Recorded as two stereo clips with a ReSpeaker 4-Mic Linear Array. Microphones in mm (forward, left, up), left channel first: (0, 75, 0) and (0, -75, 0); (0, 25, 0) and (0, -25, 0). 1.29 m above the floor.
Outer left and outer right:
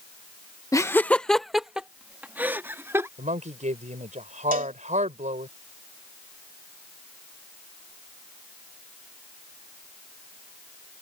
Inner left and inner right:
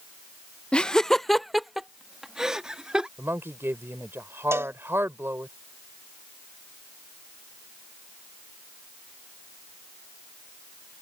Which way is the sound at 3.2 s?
55° right (ahead or behind).